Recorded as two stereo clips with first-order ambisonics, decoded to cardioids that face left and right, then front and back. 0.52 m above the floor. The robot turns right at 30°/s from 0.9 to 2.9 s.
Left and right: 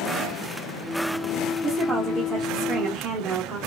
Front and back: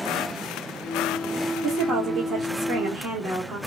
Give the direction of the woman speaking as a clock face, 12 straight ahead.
6 o'clock.